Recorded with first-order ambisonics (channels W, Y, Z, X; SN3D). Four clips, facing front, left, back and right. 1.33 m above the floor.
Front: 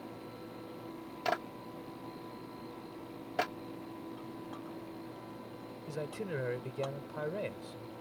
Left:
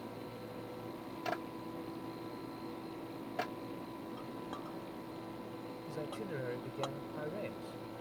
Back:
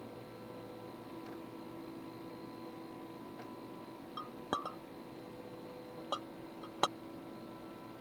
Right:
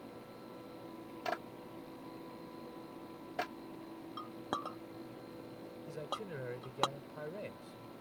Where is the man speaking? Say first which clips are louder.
Even, front 5 dB; 10° left.